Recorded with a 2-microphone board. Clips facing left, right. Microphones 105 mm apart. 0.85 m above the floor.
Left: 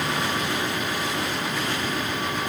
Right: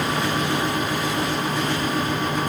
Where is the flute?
I don't hear a flute.